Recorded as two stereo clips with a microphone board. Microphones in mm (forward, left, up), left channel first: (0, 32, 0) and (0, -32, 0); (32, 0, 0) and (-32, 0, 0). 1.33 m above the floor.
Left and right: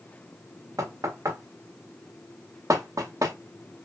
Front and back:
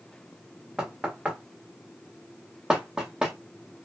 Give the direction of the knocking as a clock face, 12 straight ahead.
3 o'clock.